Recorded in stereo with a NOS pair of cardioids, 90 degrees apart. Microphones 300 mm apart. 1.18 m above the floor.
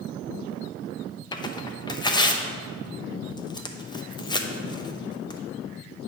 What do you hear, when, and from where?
1.3 s tearing paper: 15° left, 0.6 m